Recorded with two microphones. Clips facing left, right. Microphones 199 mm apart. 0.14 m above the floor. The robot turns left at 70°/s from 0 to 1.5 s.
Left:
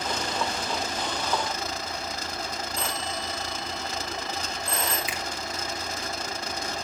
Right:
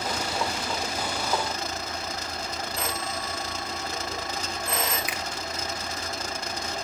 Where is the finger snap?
25° left (ahead or behind), 1.7 m.